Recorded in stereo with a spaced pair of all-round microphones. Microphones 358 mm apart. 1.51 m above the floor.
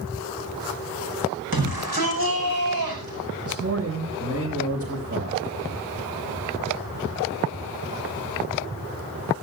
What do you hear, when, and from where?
1.5 s a shout: 85° right, 6 m; by 3.2 s 80° right, 8 m
3.5 s a man speaking: 40° right (ahead or behind), 8 m